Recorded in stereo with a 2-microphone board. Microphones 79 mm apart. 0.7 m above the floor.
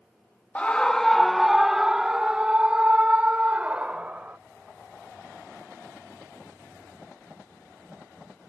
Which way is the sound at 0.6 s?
15° left (ahead or behind).